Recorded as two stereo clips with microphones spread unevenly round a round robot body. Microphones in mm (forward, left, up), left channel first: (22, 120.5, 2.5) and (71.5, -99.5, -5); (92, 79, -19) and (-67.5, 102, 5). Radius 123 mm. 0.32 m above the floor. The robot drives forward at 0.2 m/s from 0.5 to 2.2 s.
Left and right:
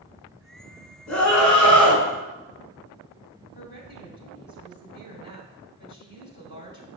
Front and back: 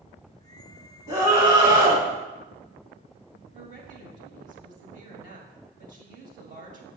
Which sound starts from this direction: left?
A scream, at 1.1 s.